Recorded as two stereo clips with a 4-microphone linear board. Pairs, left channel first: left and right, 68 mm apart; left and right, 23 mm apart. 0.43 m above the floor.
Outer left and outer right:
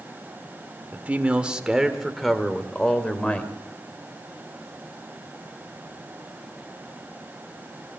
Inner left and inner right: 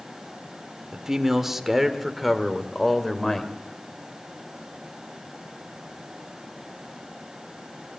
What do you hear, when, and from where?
0.9 s a man speaking: 25° right (ahead or behind), 1.4 m; by 3.5 s 20° left (ahead or behind), 2.0 m